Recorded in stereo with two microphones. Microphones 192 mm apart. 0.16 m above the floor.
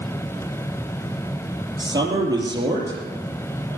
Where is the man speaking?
20° right (ahead or behind), 3.5 m.